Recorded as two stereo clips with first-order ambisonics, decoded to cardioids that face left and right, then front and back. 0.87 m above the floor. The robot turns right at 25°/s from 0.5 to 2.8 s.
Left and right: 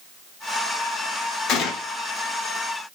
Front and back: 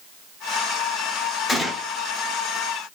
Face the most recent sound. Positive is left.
turn(degrees=110)